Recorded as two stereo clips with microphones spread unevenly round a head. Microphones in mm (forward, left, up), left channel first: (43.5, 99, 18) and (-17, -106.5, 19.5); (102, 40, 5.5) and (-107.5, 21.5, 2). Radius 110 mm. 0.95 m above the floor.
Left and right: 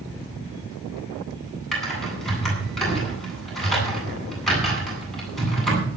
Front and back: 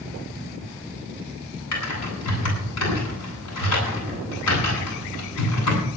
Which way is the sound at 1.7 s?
15° right.